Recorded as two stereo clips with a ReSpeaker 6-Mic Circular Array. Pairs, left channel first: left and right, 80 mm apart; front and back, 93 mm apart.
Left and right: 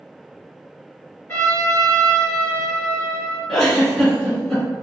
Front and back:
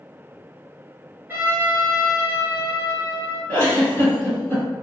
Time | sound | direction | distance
1.3 | a trumpet | 130° left | 1.9 m
3.5 | a giggle | 15° left | 1.5 m